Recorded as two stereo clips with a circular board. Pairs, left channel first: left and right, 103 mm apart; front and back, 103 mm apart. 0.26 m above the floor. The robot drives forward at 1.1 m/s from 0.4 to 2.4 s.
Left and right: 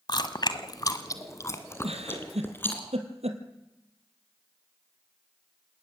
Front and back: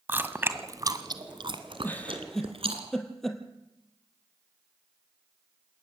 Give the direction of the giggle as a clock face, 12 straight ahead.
2 o'clock.